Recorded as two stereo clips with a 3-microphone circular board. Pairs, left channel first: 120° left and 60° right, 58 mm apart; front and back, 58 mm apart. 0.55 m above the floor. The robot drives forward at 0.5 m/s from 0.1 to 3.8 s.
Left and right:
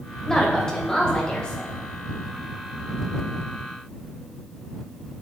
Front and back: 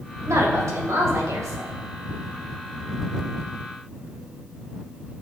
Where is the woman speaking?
160° right, 2.5 m; by 1.8 s 165° right, 3.5 m.